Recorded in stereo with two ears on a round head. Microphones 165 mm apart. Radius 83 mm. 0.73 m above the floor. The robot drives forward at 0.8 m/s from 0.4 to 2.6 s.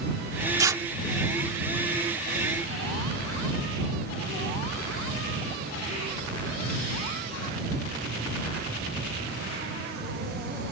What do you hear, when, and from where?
0.6 s tearing paper: 20° right (ahead or behind); by 0.8 s 15° right (ahead or behind)